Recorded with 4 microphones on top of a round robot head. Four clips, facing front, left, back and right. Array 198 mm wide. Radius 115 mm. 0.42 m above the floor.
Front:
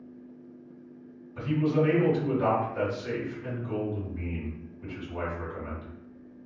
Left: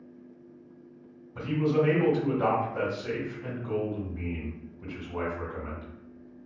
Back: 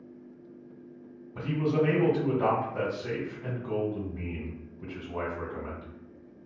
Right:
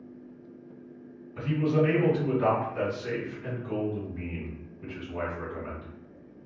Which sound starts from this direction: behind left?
A man speaking, at 1.4 s.